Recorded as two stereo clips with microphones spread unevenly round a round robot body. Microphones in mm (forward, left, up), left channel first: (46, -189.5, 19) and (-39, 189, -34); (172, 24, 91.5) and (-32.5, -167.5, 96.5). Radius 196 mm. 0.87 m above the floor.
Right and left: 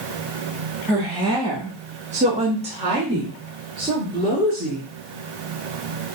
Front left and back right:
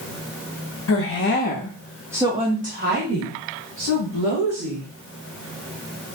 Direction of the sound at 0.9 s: 25° left.